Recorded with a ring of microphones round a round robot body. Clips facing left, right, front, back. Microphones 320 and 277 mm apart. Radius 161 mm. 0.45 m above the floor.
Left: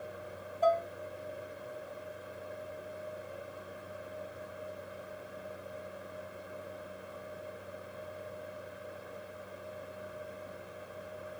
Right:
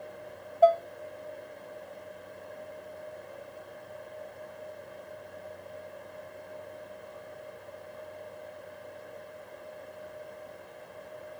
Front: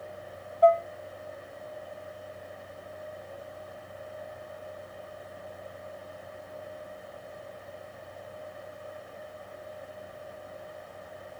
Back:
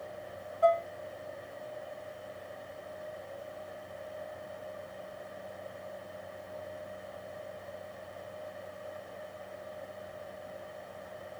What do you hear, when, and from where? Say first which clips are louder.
0.6 s dishes clattering: right 7 dB, front 6 dB; 120° right, 1.2 m